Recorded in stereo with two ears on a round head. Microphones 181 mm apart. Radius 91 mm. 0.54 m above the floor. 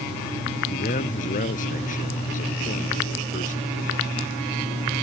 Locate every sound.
0.7 s a man speaking: 40° left (ahead or behind)